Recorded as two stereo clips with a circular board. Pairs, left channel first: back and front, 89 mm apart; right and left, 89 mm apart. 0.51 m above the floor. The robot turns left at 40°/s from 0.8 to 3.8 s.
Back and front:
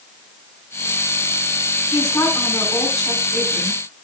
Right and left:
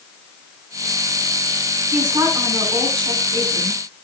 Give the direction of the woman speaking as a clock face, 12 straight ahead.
8 o'clock.